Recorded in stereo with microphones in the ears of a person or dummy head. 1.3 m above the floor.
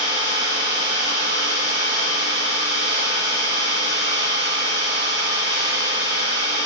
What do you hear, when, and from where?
0.0 s an engine running: 55° right (ahead or behind), 1.4 m